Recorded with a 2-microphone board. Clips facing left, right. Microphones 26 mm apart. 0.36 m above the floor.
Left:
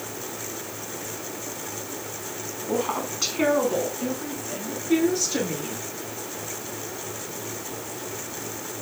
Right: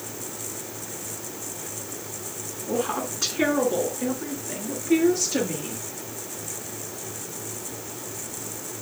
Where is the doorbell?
No doorbell in this recording.